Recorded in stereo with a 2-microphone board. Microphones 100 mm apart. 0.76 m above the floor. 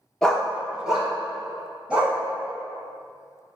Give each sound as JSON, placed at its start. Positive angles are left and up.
{"t": 0.2, "sound": "a dog barking", "side_deg": 10, "distance_m": 0.5}